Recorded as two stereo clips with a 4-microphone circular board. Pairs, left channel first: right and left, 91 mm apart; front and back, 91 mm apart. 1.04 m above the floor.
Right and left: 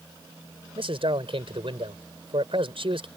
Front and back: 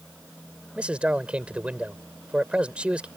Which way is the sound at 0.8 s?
105° left.